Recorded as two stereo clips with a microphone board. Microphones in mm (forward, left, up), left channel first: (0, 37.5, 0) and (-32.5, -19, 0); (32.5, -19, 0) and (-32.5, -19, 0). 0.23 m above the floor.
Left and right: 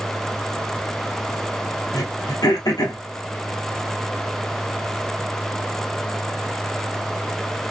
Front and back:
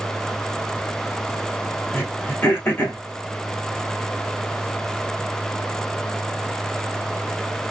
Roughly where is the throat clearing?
Ahead left.